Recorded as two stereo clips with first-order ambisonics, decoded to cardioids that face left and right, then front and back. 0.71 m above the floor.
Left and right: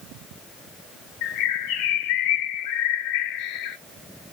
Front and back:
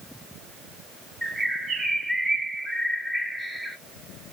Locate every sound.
1.2 s a bird: 95° left, 1.2 m